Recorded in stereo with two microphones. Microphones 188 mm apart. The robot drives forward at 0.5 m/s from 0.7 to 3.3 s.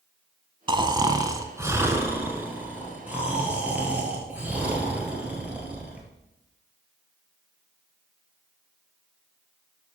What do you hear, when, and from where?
0.7 s snoring: 25° right (ahead or behind), 0.5 m; by 6.1 s 10° right (ahead or behind), 1.7 m